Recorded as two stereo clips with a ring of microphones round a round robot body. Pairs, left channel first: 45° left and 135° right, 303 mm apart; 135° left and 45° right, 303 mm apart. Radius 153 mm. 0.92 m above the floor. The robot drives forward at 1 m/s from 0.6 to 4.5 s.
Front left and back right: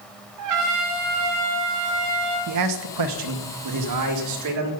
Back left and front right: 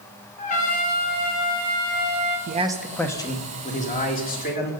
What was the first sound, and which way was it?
A trumpet, 160° right.